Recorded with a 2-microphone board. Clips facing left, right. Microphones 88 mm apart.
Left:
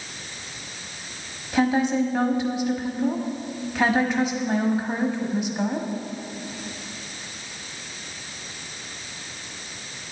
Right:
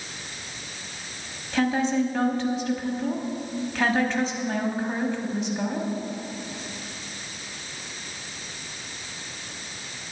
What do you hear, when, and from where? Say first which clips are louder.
1.5 s a woman speaking: left 2 dB; 10° left (ahead or behind), 1.1 m